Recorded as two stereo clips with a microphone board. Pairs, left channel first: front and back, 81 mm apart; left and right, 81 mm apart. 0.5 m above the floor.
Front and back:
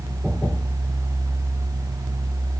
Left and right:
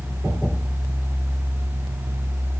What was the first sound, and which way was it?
Only background noise.